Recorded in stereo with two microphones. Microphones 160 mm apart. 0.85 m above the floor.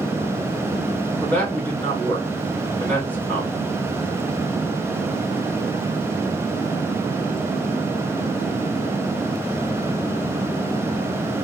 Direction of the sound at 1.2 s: 10° left (ahead or behind).